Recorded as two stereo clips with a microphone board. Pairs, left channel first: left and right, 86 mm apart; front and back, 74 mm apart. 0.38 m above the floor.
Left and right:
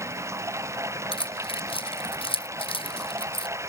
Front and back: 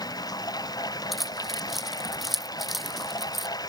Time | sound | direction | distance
0.0 | running water | 30° right | ?
1.1 | keys jangling | 90° left | ?